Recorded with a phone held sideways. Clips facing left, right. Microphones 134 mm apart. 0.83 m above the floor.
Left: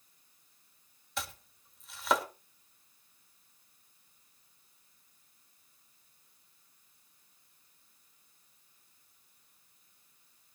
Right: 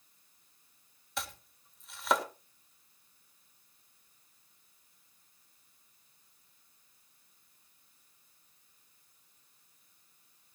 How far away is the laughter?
No laughter in this recording.